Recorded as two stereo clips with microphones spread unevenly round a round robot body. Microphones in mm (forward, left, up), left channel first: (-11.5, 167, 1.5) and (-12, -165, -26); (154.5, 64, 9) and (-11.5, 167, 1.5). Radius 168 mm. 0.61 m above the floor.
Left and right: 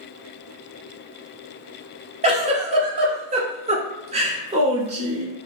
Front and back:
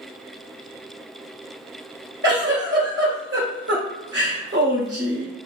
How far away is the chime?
I don't hear a chime.